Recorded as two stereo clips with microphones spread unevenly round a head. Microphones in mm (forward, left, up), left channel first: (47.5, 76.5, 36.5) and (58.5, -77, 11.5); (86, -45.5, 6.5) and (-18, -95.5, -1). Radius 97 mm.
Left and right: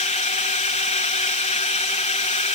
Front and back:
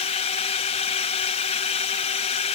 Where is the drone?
55° left.